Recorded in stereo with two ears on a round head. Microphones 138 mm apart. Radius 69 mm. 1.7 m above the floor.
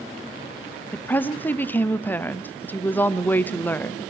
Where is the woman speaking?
10° left (ahead or behind), 0.7 m.